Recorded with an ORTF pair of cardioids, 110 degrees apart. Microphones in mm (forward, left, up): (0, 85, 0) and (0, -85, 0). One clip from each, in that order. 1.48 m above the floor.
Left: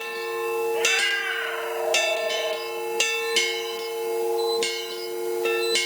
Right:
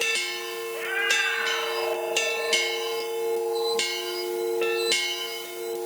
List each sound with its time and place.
0.7 s a cat meowing: straight ahead, 7 m